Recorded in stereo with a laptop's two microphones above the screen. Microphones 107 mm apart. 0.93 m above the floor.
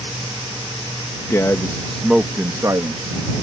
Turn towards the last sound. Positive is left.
turn(degrees=-40)  # may be behind; listen again after turning